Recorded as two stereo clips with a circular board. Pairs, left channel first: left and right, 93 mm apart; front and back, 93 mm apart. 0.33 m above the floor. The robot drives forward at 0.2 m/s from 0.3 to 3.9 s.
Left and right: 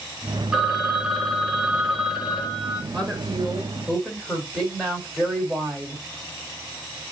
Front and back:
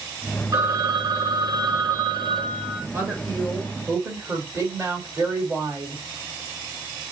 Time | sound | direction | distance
0.5 | a phone ringing | 170° right | 0.7 m
2.9 | a woman speaking | 165° left | 1.4 m